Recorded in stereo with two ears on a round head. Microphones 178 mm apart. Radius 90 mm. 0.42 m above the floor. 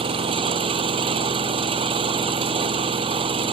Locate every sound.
0.0 s an engine running: 30° right (ahead or behind)